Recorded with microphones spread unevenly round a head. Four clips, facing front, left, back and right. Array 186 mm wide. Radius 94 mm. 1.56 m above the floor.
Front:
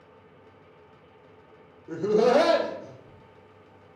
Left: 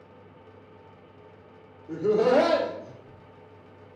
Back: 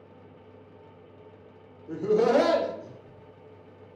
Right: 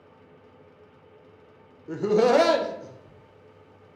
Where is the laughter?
60° right, 0.6 m; by 4.0 s 130° right, 1.2 m.